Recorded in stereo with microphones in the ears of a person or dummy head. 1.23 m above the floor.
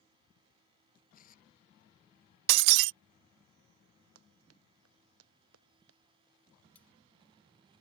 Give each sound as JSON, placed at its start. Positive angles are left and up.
{"t": 1.1, "sound": "tearing paper", "side_deg": 40}
{"t": 2.5, "sound": "breaking glass", "side_deg": -65}
{"t": 4.2, "sound": "running footsteps", "side_deg": -80}
{"t": 6.8, "sound": "cutlery clinking", "side_deg": 10}